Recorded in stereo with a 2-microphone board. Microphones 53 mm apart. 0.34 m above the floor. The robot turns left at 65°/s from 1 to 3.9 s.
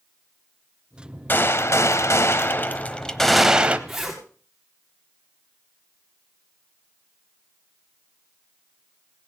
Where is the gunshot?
135° left, 0.9 m; by 3.8 s 30° right, 0.9 m.